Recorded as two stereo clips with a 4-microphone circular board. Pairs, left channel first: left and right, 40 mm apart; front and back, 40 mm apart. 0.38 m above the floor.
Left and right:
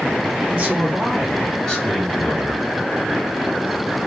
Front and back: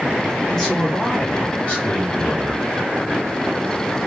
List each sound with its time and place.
0.5 s a man speaking: 50° right, 1.3 m; by 2.6 s 55° left, 1.6 m